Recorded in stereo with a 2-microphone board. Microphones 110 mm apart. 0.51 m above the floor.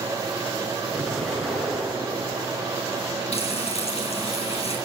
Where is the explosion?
Centre (ahead or behind), 5 m.